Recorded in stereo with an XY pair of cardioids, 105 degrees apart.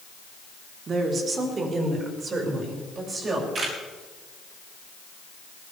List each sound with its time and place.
0.9 s a woman speaking: 50° right, 4 m; by 3.5 s 45° right, 7.5 m
3.5 s a camera shutter: 50° right, 9.5 m